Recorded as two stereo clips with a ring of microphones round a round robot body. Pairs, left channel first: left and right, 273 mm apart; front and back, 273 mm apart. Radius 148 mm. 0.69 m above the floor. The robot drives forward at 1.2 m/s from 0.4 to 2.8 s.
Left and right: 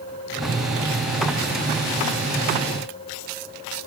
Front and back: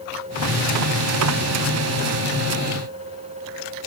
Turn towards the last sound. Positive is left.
No sound to turn to.